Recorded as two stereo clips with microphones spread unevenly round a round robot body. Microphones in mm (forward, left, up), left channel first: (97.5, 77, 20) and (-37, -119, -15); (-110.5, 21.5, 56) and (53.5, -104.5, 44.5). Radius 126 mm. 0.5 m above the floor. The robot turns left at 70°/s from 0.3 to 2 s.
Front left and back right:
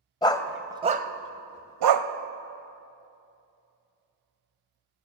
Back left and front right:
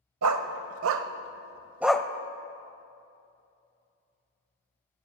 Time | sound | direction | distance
0.2 | a dog barking | 15° right | 0.6 m